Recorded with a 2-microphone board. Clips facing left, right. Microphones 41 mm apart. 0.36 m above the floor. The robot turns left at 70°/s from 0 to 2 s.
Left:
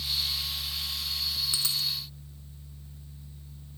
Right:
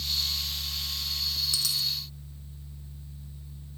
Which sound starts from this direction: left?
A dropped coin, at 1.5 s.